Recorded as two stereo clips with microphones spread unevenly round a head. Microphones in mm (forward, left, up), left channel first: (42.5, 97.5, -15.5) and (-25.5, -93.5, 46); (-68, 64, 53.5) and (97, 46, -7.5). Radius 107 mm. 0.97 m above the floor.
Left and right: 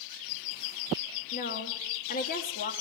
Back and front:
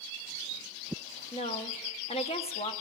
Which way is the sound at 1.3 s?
115° left.